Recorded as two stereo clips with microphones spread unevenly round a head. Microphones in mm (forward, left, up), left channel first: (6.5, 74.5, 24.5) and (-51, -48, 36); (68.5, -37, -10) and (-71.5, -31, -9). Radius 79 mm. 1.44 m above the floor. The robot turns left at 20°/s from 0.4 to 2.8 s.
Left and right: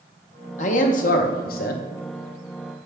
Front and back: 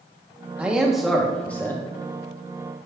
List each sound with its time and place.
0.6 s a man speaking: 95° left, 0.8 m; by 1.9 s 70° left, 0.8 m